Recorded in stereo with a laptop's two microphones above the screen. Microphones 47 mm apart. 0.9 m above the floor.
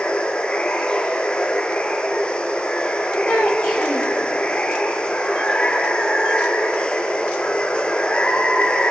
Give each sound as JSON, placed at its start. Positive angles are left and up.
{"t": 0.0, "sound": "running water", "side_deg": 25, "distance_m": 3.5}
{"t": 3.3, "sound": "a child speaking", "side_deg": 60, "distance_m": 3.0}